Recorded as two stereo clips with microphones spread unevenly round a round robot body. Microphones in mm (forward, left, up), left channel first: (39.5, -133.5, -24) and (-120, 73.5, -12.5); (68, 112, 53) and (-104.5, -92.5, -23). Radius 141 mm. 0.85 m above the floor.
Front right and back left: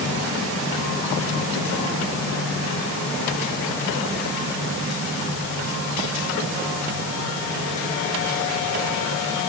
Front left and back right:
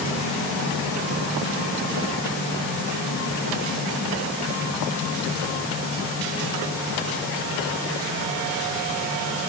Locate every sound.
Only background noise.